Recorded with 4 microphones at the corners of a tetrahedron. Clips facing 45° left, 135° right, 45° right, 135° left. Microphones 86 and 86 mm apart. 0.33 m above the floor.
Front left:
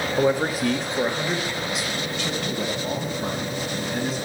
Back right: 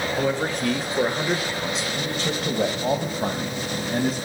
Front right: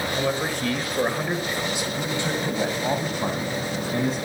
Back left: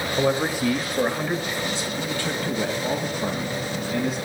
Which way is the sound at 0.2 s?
90° left.